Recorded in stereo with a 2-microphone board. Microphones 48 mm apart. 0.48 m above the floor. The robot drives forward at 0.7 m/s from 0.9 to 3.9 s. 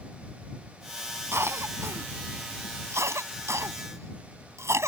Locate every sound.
1.3 s a cough: 65° right (ahead or behind); by 4.9 s 75° right (ahead or behind)